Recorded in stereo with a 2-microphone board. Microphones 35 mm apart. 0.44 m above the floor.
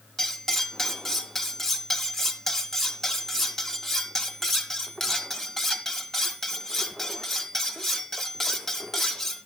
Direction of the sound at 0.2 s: 10° left (ahead or behind).